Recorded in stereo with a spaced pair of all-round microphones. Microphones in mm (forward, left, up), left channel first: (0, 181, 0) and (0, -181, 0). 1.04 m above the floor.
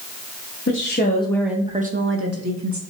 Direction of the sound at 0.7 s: 35° left (ahead or behind).